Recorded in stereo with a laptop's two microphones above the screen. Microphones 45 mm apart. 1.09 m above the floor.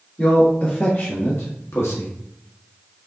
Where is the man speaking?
45° left (ahead or behind), 1.6 m; by 2.1 s 85° left, 0.9 m.